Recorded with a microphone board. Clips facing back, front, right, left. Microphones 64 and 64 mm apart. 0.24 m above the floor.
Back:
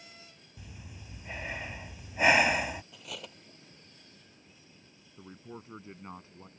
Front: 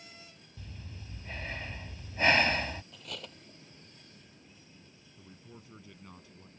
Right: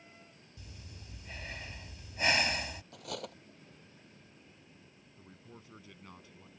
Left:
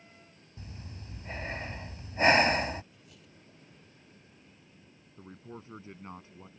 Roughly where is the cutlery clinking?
Right.